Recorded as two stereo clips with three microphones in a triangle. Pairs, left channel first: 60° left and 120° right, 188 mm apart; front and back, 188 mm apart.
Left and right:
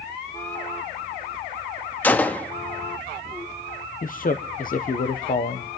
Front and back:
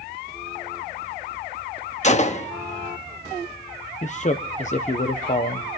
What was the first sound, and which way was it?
A gunshot, 15° right.